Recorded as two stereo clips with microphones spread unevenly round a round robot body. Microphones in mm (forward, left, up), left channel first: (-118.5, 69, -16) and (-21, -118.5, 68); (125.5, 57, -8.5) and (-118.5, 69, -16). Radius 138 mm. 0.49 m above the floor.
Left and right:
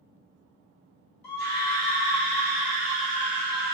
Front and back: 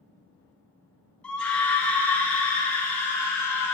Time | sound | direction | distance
1.2 | a scream | 80° left | 4.5 m